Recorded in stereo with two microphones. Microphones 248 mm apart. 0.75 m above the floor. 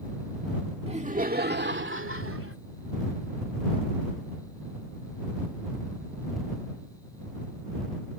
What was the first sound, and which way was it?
Laughter, 25° right (ahead or behind).